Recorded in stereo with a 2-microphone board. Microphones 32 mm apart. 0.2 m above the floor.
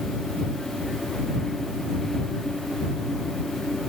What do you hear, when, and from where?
Only background noise.